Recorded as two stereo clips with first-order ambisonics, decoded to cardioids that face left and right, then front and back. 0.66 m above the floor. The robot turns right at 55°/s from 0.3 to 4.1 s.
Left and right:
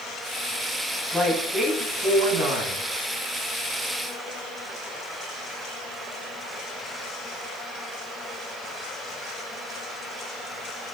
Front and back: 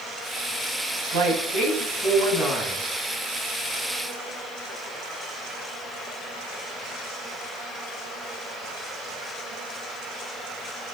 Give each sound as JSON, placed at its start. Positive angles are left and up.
{"t": 1.1, "sound": "a woman speaking", "azimuth_deg": 175, "distance_m": 3.5}